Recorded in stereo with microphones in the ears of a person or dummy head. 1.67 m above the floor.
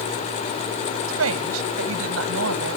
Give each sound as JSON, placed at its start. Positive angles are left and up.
{"t": 1.1, "sound": "a woman speaking", "side_deg": -85}